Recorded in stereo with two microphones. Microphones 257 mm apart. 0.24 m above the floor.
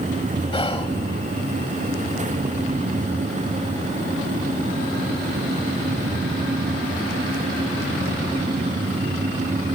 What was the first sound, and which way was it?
Whispering, 20° left (ahead or behind).